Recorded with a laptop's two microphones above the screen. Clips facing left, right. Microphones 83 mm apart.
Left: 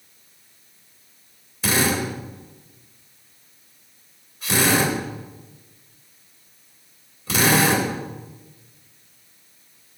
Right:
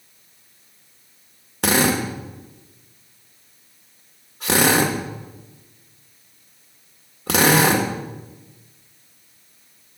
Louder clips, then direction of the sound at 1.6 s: Right 3 dB; 80° right.